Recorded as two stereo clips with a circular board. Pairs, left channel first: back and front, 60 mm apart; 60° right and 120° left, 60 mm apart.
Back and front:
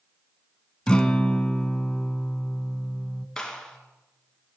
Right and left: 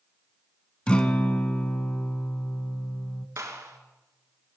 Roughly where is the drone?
I don't hear a drone.